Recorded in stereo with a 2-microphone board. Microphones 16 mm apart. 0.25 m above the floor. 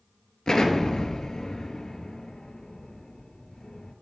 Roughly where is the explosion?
Left.